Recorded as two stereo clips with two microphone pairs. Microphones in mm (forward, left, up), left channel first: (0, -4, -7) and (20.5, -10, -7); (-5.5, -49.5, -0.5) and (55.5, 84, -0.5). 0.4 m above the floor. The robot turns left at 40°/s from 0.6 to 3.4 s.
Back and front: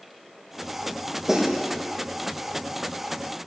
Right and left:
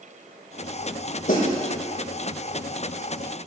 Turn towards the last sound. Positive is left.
turn(degrees=-170)